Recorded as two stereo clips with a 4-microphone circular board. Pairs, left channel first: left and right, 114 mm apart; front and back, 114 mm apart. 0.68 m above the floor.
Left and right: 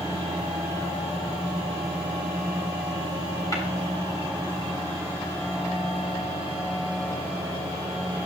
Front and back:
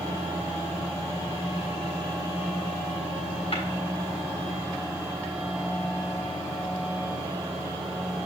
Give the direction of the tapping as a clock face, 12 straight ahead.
11 o'clock.